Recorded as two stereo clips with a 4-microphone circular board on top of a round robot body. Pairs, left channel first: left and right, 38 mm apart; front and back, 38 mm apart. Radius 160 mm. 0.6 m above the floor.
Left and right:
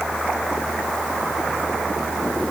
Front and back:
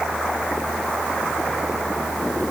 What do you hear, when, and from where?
Only background noise.